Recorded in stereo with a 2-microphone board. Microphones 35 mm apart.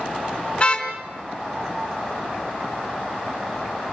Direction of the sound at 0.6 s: 30° left (ahead or behind).